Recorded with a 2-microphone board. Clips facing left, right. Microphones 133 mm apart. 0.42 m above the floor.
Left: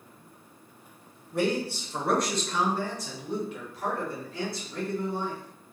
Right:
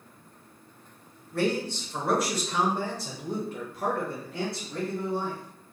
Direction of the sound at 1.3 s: 20° left (ahead or behind).